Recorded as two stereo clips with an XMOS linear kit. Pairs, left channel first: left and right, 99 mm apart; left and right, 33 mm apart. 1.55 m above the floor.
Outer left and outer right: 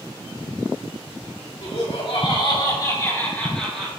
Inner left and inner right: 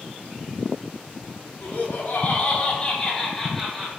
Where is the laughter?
75° left (ahead or behind), 3 m; by 3.9 s centre (ahead or behind), 2.5 m.